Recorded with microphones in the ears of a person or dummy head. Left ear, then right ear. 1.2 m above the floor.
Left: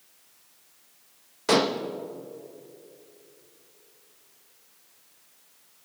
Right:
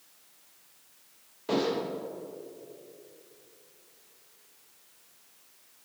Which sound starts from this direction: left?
Dishes clattering, at 1.5 s.